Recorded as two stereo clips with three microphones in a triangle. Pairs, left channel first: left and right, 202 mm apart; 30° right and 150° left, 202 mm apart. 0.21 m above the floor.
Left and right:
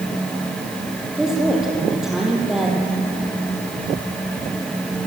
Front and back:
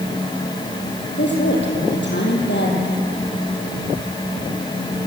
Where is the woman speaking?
5° right, 6.5 m.